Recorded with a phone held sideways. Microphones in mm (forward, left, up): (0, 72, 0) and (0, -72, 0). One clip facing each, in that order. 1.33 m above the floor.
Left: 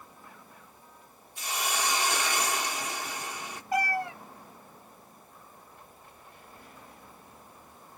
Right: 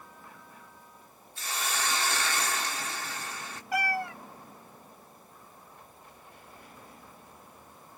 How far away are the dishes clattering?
I don't hear dishes clattering.